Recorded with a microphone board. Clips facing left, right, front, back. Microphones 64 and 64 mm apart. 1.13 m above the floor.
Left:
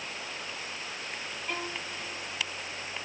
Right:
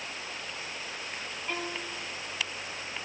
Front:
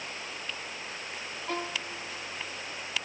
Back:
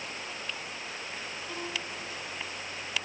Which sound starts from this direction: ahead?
A violin, at 1.5 s.